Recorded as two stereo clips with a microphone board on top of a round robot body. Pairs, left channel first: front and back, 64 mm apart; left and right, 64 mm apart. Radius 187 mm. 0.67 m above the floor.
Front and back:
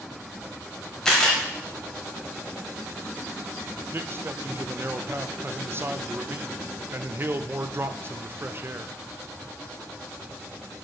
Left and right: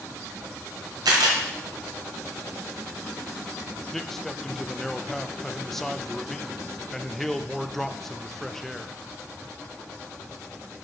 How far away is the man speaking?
About 0.6 m.